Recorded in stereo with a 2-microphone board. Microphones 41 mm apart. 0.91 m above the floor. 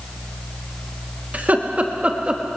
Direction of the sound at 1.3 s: 40° right (ahead or behind).